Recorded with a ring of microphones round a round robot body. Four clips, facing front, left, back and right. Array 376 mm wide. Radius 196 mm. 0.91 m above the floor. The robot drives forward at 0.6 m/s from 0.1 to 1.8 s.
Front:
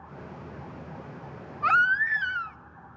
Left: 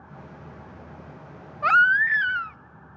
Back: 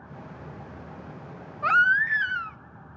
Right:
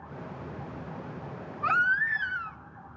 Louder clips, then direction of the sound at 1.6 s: Left 7 dB, back 1 dB; 85° left.